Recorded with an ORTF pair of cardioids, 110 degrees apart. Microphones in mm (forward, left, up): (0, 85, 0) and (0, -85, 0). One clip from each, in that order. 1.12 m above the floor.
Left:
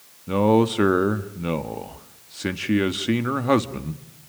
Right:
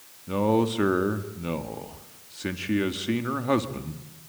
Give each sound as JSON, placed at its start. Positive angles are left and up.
{"t": 0.3, "sound": "a man speaking", "azimuth_deg": 30, "distance_m": 2.0}